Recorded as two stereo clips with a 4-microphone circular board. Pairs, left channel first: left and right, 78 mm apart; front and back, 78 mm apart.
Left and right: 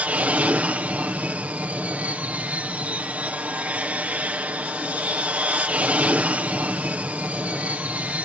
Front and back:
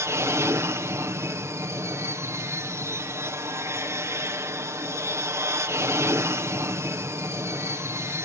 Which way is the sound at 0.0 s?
150° right.